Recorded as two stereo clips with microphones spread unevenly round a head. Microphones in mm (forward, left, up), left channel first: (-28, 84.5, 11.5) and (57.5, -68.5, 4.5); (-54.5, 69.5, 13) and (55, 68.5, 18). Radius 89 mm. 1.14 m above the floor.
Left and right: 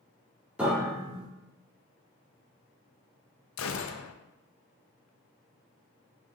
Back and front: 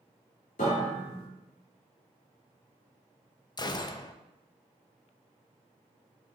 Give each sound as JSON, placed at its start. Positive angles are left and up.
{"t": 0.6, "sound": "a piano", "azimuth_deg": -145, "distance_m": 2.0}
{"t": 3.6, "sound": "a gunshot", "azimuth_deg": 125, "distance_m": 0.6}